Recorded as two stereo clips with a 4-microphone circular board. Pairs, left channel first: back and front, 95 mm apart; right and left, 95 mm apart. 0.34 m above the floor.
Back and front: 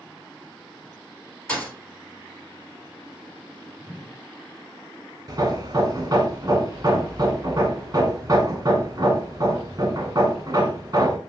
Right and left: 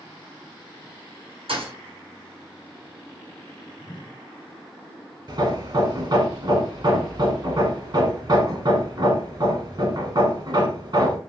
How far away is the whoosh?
About 1.4 m.